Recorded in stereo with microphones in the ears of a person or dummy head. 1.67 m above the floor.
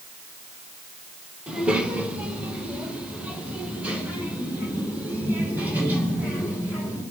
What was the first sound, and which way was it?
A child speaking, 5° right (ahead or behind).